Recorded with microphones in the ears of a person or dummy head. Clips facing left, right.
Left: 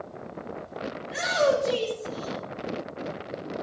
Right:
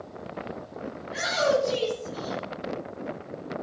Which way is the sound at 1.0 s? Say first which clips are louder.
Left 2 dB; 60° left (ahead or behind).